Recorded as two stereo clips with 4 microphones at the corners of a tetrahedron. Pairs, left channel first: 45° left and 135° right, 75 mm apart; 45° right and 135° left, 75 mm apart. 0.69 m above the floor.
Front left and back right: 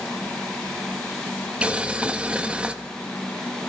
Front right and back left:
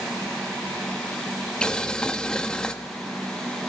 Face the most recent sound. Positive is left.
turn(degrees=-100)